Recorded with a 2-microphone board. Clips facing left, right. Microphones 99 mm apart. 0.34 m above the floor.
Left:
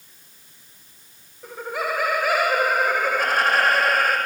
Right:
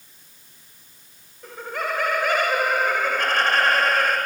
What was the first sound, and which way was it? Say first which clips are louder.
Laughter: left 1 dB; 5° left (ahead or behind).